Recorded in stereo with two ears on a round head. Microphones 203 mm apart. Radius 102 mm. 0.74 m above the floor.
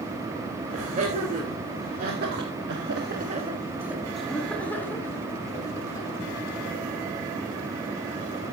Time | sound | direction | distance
0.7 | laughter | 35° right (ahead or behind) | 3.5 m